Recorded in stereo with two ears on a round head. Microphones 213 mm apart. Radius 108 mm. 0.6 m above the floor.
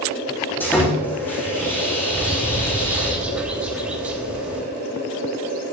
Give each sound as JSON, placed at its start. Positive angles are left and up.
{"t": 0.6, "sound": "sawing", "side_deg": 10, "distance_m": 8.5}
{"t": 2.1, "sound": "a bird", "side_deg": -5, "distance_m": 3.0}